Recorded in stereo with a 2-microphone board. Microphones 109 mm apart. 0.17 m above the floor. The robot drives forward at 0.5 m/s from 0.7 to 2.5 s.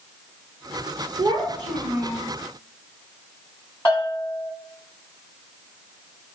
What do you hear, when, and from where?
1.2 s a child speaking: 40° right (ahead or behind), 1.1 m; by 2.2 s 30° right (ahead or behind), 1.4 m
3.9 s a bell: 20° left (ahead or behind), 1.5 m